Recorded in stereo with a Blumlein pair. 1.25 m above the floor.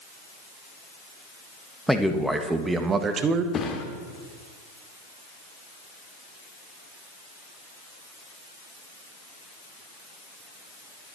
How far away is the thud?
About 1.9 m.